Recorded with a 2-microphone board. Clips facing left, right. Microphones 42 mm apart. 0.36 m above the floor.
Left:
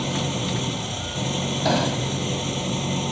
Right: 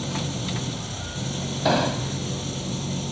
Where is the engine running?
45° left (ahead or behind).